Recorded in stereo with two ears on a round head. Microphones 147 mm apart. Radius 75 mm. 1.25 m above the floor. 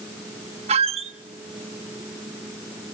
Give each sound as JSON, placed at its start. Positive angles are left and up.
{"t": 0.7, "sound": "a squeak", "side_deg": -40, "distance_m": 1.0}